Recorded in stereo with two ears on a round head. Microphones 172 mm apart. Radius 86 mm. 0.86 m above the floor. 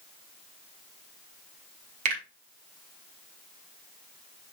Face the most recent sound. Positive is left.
turn(degrees=-40)  # may be behind; listen again after turning